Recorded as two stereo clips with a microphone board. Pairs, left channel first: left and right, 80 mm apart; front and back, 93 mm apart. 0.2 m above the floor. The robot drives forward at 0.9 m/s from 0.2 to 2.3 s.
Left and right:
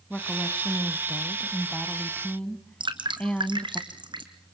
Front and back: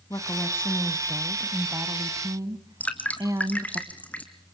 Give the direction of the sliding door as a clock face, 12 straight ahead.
No sliding door in this recording.